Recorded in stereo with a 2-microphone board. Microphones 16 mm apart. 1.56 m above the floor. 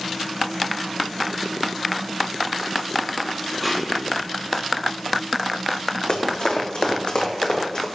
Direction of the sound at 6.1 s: 55° left (ahead or behind).